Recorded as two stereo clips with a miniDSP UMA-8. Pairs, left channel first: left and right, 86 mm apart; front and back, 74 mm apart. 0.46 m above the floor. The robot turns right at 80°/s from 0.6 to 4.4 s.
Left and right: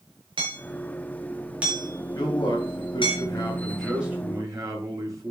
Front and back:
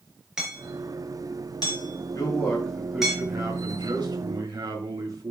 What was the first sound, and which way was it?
Hammering, 95° right.